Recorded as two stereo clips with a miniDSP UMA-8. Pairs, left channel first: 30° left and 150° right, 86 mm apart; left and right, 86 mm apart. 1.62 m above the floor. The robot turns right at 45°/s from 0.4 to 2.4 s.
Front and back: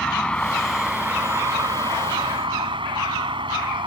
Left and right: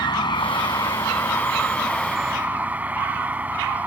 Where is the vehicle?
110° left; by 3.9 s 160° right.